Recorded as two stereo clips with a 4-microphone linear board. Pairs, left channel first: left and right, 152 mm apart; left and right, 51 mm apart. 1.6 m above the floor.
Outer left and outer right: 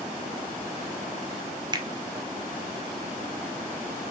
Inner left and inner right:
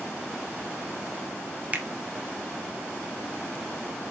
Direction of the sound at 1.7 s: 30° right (ahead or behind).